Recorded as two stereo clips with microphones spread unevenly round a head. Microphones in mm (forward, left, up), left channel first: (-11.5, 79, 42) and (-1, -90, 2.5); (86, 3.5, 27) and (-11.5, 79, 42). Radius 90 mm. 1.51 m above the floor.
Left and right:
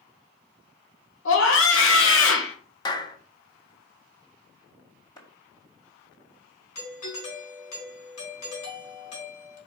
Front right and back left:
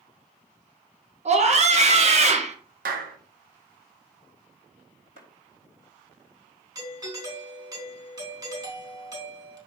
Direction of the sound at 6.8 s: 80° left.